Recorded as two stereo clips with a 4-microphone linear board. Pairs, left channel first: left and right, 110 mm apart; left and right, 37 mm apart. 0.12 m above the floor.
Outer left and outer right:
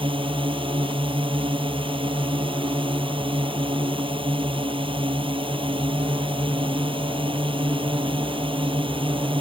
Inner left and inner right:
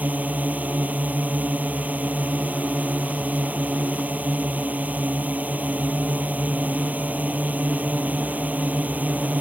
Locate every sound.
0.0 s a drone: 55° right (ahead or behind)